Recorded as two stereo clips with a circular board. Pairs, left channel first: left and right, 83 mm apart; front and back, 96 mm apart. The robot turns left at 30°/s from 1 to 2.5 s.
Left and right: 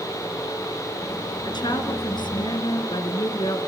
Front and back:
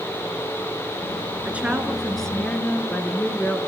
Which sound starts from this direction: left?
A woman speaking, at 1.4 s.